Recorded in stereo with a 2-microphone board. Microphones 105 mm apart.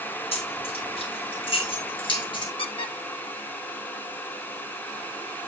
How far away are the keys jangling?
About 5.5 m.